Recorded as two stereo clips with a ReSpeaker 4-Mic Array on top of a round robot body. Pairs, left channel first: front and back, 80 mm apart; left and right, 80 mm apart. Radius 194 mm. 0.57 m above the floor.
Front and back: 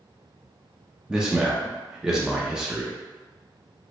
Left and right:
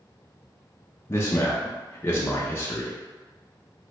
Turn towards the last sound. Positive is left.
turn(degrees=105)